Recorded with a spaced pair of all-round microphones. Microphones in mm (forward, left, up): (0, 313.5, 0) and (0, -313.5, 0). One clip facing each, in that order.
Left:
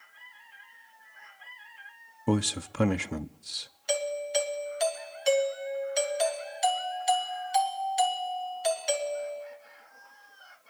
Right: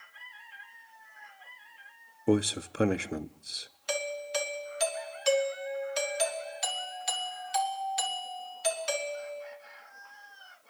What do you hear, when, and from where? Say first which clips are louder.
2.3 s a man speaking: right 2 dB; 30° left (ahead or behind), 0.7 m
3.9 s a doorbell: left 4 dB; 35° right (ahead or behind), 3 m